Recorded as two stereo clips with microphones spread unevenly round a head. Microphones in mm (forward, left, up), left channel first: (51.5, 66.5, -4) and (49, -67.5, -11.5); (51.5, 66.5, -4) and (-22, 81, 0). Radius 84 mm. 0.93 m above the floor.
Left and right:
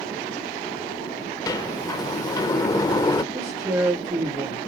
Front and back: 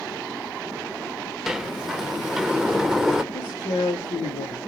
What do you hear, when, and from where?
1.5 s a sliding door: 95° left, 0.6 m
3.3 s a man speaking: 25° right, 3 m